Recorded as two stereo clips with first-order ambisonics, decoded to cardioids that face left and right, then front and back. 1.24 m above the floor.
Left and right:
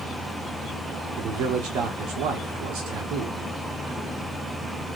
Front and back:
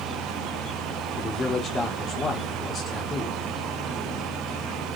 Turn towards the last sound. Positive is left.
turn(degrees=-70)